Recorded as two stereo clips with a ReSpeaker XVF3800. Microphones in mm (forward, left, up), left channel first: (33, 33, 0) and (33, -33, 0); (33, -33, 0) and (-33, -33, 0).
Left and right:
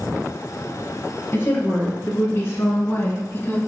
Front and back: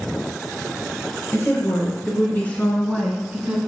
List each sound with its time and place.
1.3 s a woman speaking: 40° left, 3 m; by 3.6 s 110° left, 1.5 m